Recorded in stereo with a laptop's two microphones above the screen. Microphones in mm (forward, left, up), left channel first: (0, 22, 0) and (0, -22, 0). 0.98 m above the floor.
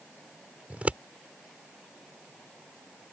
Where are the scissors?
30° right (ahead or behind).